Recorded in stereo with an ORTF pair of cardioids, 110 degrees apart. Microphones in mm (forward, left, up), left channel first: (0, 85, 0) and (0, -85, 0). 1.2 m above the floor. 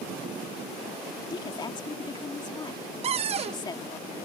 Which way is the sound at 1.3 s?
25° left.